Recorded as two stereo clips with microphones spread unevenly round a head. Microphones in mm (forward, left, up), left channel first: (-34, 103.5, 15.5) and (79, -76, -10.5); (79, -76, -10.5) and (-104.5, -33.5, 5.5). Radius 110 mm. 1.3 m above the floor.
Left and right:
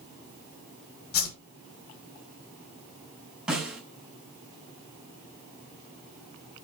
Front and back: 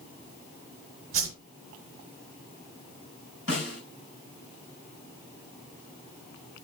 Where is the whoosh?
105° left, 3 m.